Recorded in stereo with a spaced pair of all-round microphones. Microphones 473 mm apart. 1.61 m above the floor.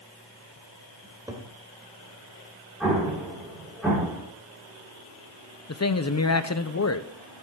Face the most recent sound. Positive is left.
turn(degrees=35)  # may be behind; listen again after turning